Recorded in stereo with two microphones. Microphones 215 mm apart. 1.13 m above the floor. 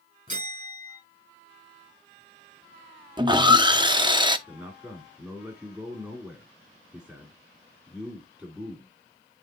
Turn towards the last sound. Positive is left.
turn(degrees=-15)  # may be behind; listen again after turning